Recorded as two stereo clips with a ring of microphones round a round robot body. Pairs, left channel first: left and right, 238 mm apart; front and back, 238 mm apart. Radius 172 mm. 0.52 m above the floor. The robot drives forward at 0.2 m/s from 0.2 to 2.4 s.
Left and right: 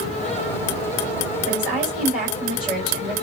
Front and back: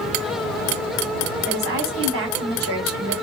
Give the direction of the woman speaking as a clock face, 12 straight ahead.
7 o'clock.